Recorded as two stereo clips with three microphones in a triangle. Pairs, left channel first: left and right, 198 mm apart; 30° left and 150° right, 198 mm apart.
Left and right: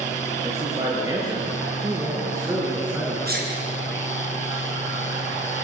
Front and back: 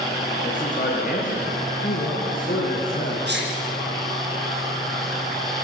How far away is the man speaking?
About 5 m.